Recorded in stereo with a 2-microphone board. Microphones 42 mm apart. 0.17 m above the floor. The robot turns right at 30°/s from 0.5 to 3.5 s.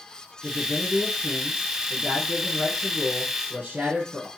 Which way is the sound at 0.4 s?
145° left.